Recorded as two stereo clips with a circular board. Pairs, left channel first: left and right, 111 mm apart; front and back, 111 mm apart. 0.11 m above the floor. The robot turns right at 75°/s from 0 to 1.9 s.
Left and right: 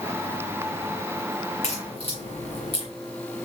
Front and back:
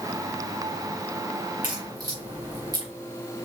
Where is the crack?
100° left, 4 m; by 2.9 s 120° left, 4 m.